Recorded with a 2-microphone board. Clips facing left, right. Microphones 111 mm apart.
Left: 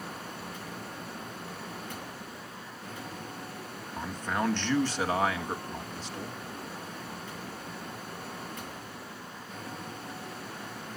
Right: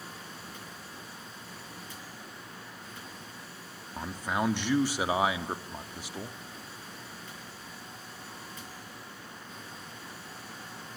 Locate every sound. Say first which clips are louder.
4.0 s a man speaking: even; 10° right (ahead or behind), 1.7 m